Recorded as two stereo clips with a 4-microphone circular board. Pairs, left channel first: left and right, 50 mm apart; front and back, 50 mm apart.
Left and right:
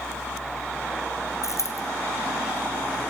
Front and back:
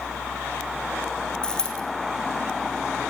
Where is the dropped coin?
75° left, 2.5 m.